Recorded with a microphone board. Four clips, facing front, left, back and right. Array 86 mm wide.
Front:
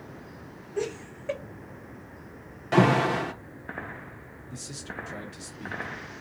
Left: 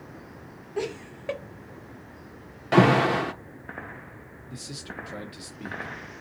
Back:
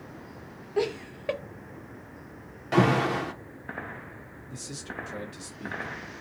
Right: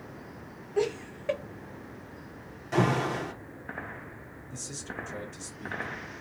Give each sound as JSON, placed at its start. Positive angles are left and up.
{"t": 0.8, "sound": "laughter", "azimuth_deg": 175, "distance_m": 0.7}
{"t": 2.7, "sound": "an alarm", "azimuth_deg": 85, "distance_m": 0.6}
{"t": 4.5, "sound": "a man speaking", "azimuth_deg": 90, "distance_m": 1.0}